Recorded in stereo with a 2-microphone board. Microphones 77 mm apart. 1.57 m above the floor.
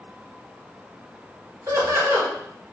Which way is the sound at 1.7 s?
40° right (ahead or behind).